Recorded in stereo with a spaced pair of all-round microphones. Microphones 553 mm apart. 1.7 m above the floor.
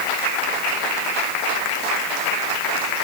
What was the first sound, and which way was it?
Only background noise.